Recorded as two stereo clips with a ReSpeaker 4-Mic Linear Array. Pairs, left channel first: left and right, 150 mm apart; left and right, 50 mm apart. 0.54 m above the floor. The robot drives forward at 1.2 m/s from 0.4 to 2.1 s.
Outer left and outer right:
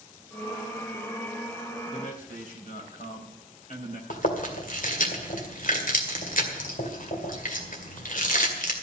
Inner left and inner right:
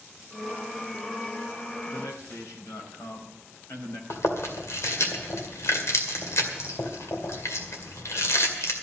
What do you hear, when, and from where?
1.9 s a man speaking: 65° left (ahead or behind), 3.5 m; by 4.0 s 60° left (ahead or behind), 4 m
4.1 s chewing: 65° left (ahead or behind), 2 m